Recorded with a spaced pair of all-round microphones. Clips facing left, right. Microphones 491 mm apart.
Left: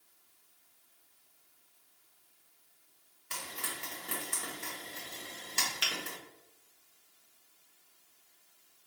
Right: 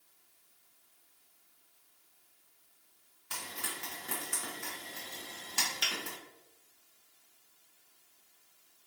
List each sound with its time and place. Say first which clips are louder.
3.3 s frying: even; 5° right (ahead or behind), 1.5 m
5.8 s a finger snap: left 1 dB; 30° left (ahead or behind), 0.8 m